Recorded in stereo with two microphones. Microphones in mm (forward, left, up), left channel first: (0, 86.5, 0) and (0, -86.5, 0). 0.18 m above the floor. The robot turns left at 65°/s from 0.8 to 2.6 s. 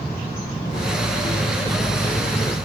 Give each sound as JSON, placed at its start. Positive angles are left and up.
{"t": 0.6, "sound": "cutlery clinking", "azimuth_deg": 130, "distance_m": 5.5}